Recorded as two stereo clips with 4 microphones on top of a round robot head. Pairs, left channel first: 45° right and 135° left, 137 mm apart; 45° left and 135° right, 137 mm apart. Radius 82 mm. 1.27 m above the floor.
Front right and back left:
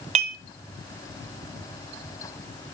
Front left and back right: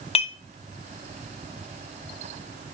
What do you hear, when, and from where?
0.1 s dishes clattering: 90° left, 0.7 m